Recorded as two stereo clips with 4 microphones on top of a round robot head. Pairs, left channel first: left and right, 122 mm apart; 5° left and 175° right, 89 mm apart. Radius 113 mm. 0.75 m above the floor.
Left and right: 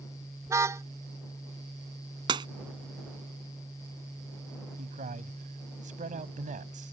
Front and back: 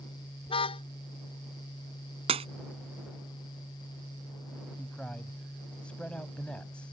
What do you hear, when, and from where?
0.5 s a car horn: 20° right
2.3 s breaking glass: 150° right
4.8 s a man speaking: 75° right